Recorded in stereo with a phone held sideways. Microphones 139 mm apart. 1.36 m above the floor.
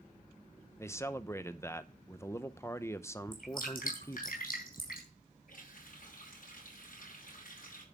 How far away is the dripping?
About 4 m.